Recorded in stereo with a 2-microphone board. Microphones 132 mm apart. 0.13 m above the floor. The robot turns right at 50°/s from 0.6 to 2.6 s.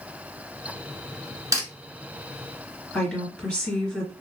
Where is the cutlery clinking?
25° right (ahead or behind), 0.9 m; by 1.6 s 20° right (ahead or behind), 0.9 m.